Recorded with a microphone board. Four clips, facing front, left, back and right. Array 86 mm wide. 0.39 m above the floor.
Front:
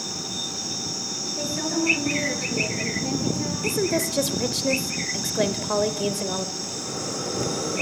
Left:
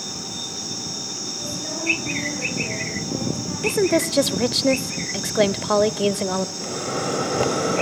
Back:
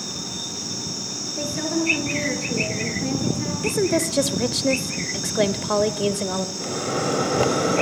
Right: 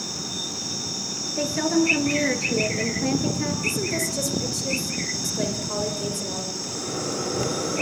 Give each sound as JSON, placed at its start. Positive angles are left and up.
{"t": 1.4, "sound": "a woman speaking", "azimuth_deg": -100, "distance_m": 7.0}
{"t": 3.6, "sound": "a woman speaking", "azimuth_deg": 105, "distance_m": 1.1}
{"t": 6.6, "sound": "a microwave", "azimuth_deg": 145, "distance_m": 1.9}